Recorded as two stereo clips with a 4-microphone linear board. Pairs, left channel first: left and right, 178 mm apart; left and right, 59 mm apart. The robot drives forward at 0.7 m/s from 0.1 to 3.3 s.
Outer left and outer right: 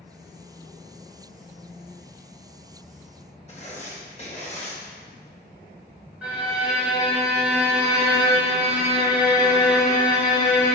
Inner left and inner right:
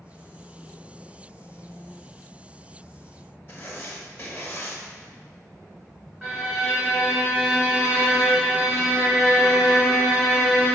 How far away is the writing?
About 0.8 m.